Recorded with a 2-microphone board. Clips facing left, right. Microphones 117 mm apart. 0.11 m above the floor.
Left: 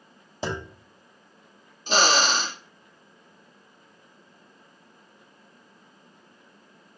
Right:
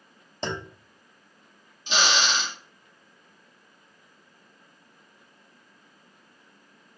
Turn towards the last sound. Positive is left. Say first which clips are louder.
# left 4 dB
turn(degrees=40)  # may be behind; listen again after turning